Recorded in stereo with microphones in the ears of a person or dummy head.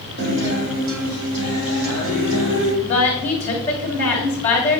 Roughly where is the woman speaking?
Centre.